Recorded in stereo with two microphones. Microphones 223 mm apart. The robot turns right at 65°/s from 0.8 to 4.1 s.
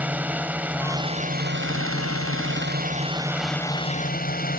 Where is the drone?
175° right; by 4.6 s 40° left.